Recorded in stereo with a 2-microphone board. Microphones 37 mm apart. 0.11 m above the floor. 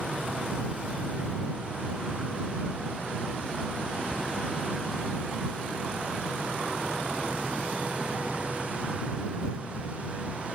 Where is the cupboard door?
20° right (ahead or behind).